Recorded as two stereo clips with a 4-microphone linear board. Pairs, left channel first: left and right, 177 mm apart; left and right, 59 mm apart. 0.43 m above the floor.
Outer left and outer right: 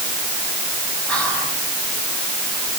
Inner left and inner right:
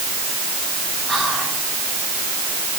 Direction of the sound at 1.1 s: 5° left (ahead or behind).